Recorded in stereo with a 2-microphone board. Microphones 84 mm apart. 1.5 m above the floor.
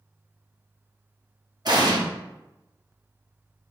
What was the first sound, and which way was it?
An explosion, 55° right (ahead or behind).